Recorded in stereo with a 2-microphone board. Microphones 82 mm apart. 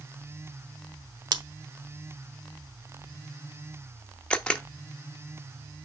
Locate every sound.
1.3 s scissors: 60° right (ahead or behind), 0.8 m
4.3 s a camera shutter: 15° left (ahead or behind), 0.7 m